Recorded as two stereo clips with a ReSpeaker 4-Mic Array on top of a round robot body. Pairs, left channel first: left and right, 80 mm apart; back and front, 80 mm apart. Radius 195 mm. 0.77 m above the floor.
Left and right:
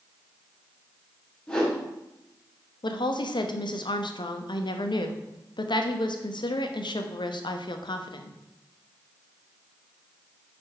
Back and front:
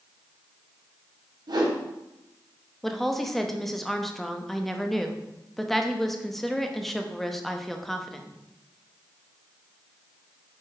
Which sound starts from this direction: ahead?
A whoosh, at 1.5 s.